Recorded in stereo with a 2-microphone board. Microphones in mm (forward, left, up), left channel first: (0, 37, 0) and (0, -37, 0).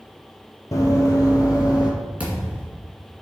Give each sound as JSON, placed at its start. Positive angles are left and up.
{"t": 0.7, "sound": "running footsteps", "side_deg": 45, "distance_m": 1.3}
{"t": 2.2, "sound": "a thud", "side_deg": -15, "distance_m": 2.0}